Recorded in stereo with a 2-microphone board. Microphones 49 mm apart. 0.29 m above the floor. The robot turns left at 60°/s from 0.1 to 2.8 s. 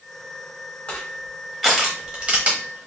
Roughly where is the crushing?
Left.